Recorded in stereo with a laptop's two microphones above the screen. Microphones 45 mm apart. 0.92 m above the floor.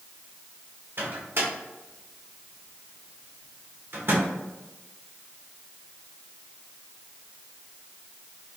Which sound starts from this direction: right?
A microwave, at 1.0 s.